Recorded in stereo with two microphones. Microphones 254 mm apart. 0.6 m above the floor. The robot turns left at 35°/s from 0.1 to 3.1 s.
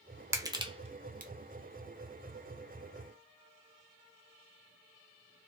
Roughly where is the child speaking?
I don't hear a child speaking.